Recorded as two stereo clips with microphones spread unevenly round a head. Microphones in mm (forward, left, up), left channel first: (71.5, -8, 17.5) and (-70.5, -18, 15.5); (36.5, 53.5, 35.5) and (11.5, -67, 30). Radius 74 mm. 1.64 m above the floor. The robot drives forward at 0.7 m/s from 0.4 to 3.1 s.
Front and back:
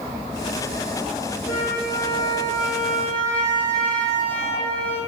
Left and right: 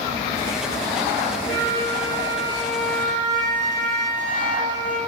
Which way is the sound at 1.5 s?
40° left.